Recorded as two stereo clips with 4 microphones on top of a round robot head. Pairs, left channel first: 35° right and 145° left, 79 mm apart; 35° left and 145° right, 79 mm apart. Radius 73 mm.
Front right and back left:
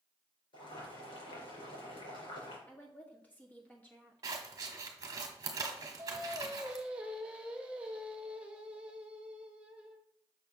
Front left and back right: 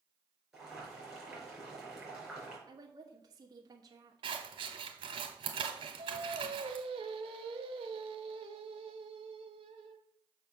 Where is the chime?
I don't hear a chime.